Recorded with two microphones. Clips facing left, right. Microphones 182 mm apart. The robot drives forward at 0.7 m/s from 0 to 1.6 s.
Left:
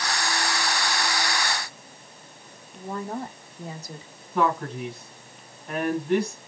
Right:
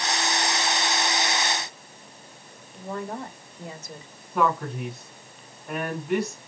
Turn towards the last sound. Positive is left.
turn(degrees=-5)  # may be behind; listen again after turning